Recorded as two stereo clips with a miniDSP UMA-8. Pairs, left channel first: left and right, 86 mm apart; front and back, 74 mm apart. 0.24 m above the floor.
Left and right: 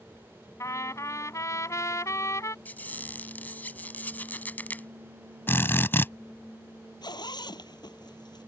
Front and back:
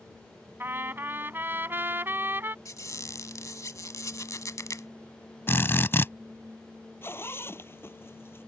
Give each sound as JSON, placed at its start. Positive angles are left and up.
{"t": 0.6, "sound": "a trumpet", "azimuth_deg": 130}
{"t": 2.6, "sound": "a squeak", "azimuth_deg": 25}
{"t": 5.5, "sound": "a drill", "azimuth_deg": 40}
{"t": 7.0, "sound": "a zipper", "azimuth_deg": 55}